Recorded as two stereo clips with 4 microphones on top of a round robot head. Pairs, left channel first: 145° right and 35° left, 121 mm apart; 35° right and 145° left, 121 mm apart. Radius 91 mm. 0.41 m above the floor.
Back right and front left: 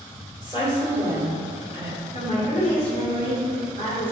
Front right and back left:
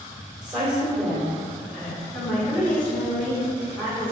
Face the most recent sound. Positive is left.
turn(degrees=-115)